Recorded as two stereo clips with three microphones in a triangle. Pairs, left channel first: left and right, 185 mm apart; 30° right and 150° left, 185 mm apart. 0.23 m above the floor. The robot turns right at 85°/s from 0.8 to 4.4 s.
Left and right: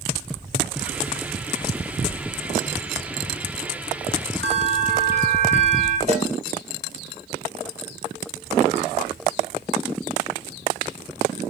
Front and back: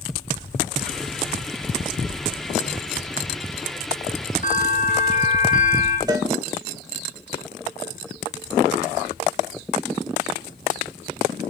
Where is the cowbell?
140° right, 2.5 m.